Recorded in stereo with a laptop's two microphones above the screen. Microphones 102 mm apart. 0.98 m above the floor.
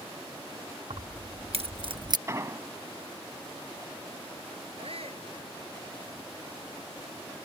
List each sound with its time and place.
0.9 s keys jangling: 75° right (ahead or behind); by 2.2 s 40° right (ahead or behind)
2.3 s an explosion: 30° right (ahead or behind)
4.8 s a shout: 70° right (ahead or behind)